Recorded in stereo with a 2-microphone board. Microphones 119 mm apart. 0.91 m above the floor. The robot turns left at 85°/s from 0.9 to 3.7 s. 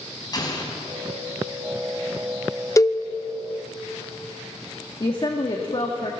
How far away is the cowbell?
About 0.8 m.